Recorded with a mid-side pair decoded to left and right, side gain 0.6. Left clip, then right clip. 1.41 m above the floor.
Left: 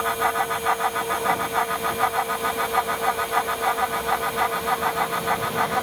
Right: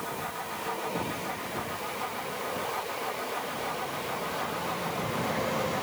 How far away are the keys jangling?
I don't hear keys jangling.